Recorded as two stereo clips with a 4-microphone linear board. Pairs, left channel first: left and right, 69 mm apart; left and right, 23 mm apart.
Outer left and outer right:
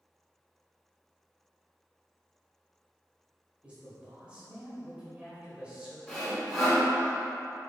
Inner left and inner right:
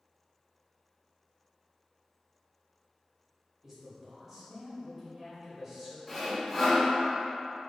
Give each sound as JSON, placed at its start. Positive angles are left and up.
{"t": 3.6, "sound": "a man speaking", "side_deg": -15, "distance_m": 1.5}
{"t": 6.1, "sound": "sawing", "side_deg": 10, "distance_m": 1.6}